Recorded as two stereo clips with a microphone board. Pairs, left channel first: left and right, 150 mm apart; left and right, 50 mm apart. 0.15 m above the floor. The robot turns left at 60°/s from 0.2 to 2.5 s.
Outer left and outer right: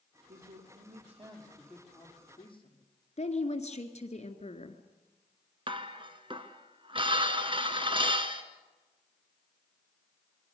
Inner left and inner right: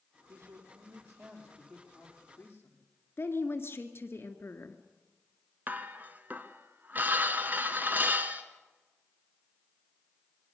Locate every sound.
0.3 s a man speaking: 85° right, 5 m; by 2.9 s 140° left, 5 m
3.2 s a woman speaking: 45° left (ahead or behind), 1.9 m
5.7 s dishes clattering: 35° right (ahead or behind), 1.4 m